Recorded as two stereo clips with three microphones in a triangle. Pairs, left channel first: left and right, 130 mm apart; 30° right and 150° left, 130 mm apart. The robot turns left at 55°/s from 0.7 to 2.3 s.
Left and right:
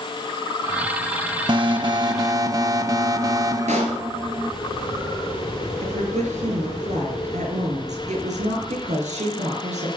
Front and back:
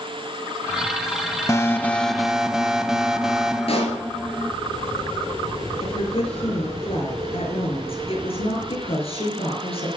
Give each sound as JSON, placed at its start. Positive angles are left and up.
{"t": 1.5, "sound": "an alarm", "azimuth_deg": -80, "distance_m": 0.8}
{"t": 3.7, "sound": "a pop", "azimuth_deg": -70, "distance_m": 4.5}
{"t": 5.8, "sound": "a woman speaking", "azimuth_deg": -70, "distance_m": 5.5}